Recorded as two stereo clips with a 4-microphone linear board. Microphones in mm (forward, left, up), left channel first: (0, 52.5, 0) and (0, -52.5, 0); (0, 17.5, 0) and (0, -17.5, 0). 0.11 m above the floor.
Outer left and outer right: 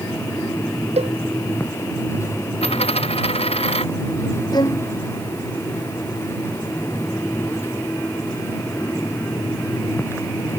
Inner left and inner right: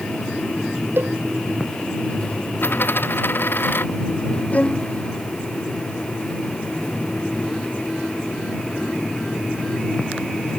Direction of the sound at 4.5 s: 40° left (ahead or behind).